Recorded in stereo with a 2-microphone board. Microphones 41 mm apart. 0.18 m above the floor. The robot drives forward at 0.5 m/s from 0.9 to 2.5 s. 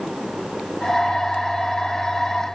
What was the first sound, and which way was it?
Only background noise.